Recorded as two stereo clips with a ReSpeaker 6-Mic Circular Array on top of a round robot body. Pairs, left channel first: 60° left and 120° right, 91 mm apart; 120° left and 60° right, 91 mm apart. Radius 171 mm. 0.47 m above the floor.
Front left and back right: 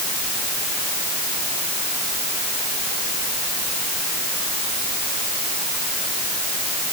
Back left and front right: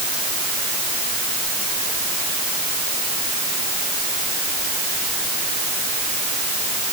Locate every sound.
Only background noise.